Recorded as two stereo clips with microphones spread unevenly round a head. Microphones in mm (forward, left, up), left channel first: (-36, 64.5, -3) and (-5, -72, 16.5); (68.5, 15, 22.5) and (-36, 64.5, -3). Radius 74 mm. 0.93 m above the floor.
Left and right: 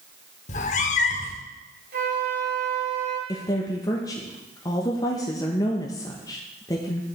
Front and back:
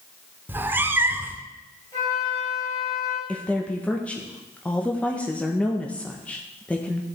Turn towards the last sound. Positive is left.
turn(degrees=65)